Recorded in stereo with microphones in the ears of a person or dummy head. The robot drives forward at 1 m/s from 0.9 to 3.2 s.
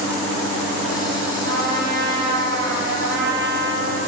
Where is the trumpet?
50° right (ahead or behind), 6.5 m; by 4.0 s 65° right (ahead or behind), 5.5 m.